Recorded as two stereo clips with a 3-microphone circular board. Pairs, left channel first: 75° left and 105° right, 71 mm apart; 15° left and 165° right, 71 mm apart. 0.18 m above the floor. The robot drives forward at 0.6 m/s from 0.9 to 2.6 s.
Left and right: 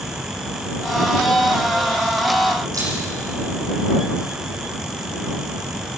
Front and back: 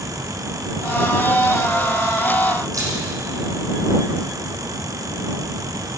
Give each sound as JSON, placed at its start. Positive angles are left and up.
{"t": 2.7, "sound": "a camera shutter", "azimuth_deg": -135, "distance_m": 7.5}